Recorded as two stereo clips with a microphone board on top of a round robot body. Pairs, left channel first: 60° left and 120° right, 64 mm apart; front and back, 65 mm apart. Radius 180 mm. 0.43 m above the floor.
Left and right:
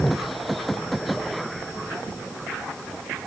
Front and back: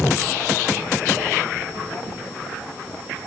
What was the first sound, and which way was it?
Only background noise.